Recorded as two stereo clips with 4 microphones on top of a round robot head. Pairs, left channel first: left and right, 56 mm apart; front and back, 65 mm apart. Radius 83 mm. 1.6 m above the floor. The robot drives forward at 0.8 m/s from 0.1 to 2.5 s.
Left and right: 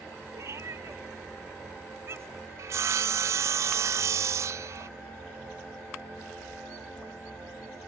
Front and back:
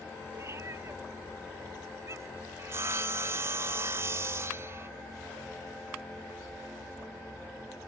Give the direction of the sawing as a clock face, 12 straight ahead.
4 o'clock.